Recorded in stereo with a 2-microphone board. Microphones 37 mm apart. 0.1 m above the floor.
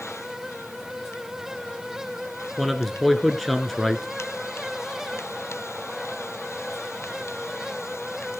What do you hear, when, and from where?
2.6 s a man speaking: centre (ahead or behind), 1.1 m